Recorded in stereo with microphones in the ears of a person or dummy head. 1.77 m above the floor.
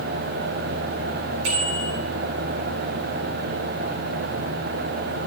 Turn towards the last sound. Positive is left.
turn(degrees=-65)  # may be behind; listen again after turning